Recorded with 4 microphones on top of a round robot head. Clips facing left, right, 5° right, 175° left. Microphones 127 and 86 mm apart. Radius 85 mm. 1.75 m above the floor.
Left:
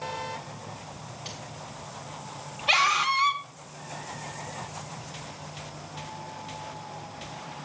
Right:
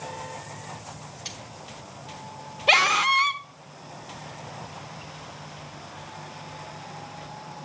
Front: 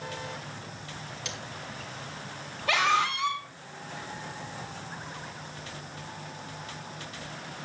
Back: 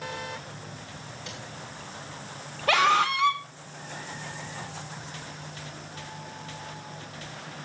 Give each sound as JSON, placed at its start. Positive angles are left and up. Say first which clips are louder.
{"t": 1.2, "sound": "cutlery clinking", "louder": "left 2 dB, front 1 dB", "azimuth_deg": -30, "distance_m": 1.8}
{"t": 2.7, "sound": "a scream", "louder": "right 3 dB, back 4 dB", "azimuth_deg": -125, "distance_m": 1.7}